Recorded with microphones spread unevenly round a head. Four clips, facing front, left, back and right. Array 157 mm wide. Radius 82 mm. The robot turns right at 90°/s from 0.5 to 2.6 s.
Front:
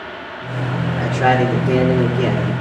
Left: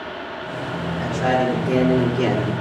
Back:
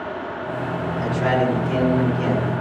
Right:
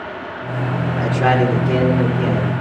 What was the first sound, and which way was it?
A man speaking, 50° right.